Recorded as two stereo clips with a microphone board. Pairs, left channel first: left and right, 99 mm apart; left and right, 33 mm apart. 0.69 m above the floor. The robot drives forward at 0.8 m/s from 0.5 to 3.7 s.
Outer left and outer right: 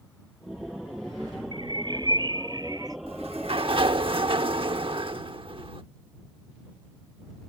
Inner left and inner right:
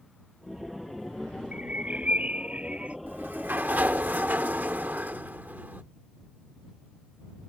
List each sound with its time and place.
1.5 s a bird: 55° right (ahead or behind); by 3.0 s 40° right (ahead or behind)
3.1 s a sliding door: 75° right (ahead or behind); by 5.8 s 65° right (ahead or behind)